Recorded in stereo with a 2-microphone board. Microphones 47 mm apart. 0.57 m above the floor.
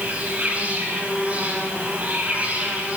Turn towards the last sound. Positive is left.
turn(degrees=-30)  # may be behind; listen again after turning